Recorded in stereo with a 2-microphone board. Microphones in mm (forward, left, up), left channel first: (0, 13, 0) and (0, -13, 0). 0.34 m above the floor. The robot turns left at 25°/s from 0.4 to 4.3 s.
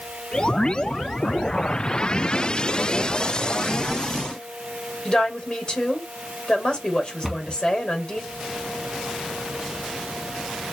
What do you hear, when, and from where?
5.0 s a woman speaking: 30° left (ahead or behind), 1.3 m
7.2 s a cupboard door: centre (ahead or behind), 1.2 m